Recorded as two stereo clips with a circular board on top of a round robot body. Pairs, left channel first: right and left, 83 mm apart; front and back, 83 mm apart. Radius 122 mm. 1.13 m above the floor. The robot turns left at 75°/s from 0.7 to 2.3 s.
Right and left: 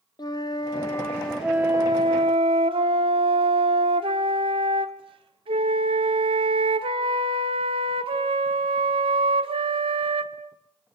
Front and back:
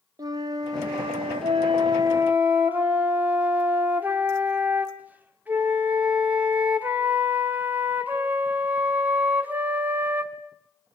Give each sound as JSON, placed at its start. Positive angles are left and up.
{"t": 0.2, "sound": "a flute", "azimuth_deg": -135, "distance_m": 1.2}